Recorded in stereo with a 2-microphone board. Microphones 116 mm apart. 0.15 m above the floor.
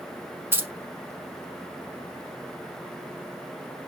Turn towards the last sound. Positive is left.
turn(degrees=-20)  # may be behind; listen again after turning